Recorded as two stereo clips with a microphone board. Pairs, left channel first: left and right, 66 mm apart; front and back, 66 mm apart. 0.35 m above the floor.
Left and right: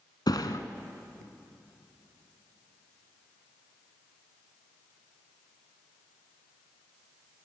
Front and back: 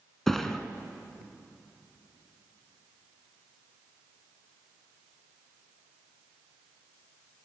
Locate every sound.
0.3 s a thud: 85° left, 1.3 m